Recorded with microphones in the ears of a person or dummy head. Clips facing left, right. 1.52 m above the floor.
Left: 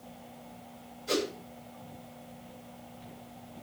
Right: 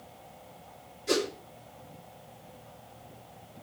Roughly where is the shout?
No shout in this recording.